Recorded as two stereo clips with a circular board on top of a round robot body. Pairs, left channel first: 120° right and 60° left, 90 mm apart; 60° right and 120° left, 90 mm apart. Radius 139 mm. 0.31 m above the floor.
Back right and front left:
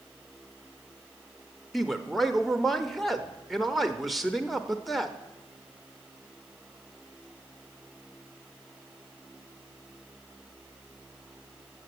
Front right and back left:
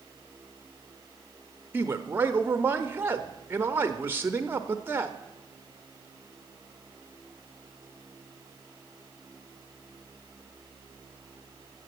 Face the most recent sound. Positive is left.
turn(degrees=150)